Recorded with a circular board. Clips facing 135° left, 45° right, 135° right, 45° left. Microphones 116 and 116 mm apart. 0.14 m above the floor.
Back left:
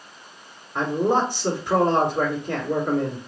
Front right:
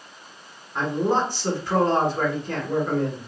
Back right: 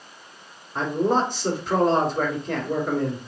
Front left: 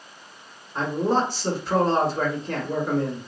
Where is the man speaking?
Straight behind, 1.1 m.